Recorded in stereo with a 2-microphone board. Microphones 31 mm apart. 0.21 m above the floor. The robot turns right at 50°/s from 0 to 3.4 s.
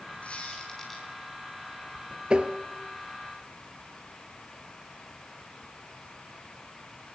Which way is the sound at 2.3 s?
30° right (ahead or behind).